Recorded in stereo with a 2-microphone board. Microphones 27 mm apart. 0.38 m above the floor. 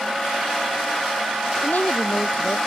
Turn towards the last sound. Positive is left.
turn(degrees=80)